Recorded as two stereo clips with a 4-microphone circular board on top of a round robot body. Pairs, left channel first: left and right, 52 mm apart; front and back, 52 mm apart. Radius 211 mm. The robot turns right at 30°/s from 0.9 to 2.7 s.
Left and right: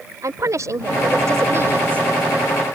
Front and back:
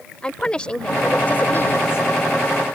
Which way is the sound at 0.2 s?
75° right.